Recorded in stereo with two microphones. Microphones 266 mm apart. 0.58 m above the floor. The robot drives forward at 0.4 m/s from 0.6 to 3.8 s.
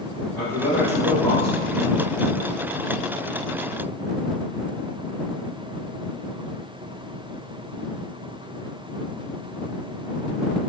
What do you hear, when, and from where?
0.3 s a man speaking: 5° left (ahead or behind), 1.1 m